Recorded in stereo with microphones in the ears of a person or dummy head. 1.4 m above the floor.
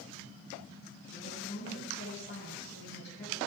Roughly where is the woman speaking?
Left.